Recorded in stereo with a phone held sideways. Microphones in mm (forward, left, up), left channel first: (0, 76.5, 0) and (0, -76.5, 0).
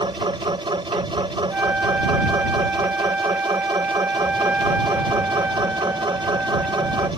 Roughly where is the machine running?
Right.